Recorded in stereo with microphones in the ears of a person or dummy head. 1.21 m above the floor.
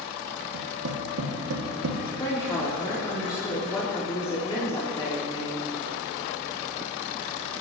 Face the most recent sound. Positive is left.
turn(degrees=20)  # may be behind; listen again after turning